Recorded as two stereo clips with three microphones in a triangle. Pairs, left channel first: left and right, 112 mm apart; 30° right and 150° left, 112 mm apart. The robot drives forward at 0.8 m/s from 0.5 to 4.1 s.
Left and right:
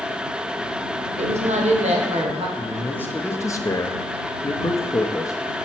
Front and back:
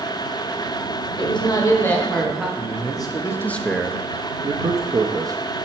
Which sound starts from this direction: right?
A woman speaking, at 1.2 s.